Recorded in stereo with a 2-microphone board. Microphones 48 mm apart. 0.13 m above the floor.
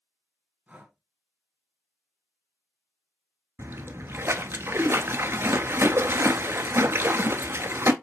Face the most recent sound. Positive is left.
turn(degrees=-60)  # may be behind; listen again after turning